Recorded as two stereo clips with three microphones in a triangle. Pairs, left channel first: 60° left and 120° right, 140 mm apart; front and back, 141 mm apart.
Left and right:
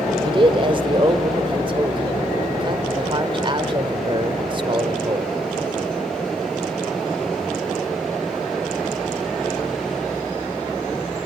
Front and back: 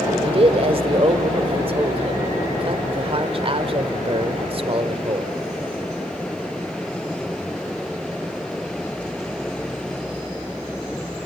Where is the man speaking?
155° right, 1.3 m.